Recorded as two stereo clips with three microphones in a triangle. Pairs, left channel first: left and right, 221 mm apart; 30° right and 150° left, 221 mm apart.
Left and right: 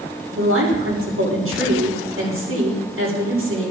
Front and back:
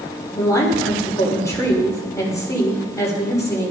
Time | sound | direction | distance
0.3 | a woman speaking | 105° right | 6 m